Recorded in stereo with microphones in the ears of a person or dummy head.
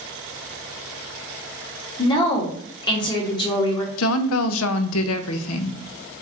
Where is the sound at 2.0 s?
25° left (ahead or behind), 1.1 m.